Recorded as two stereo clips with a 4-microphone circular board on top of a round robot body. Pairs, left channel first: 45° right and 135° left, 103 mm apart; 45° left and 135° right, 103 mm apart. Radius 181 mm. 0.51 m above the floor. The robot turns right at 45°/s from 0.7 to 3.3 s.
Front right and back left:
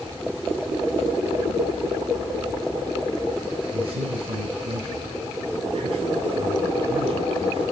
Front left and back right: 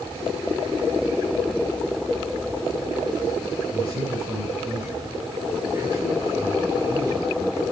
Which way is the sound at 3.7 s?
160° left.